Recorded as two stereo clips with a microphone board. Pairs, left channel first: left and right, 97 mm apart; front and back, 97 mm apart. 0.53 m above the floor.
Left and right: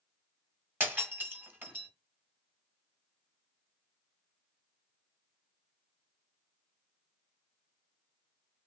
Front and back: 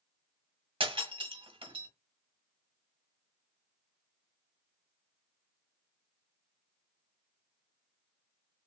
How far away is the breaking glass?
About 1.7 m.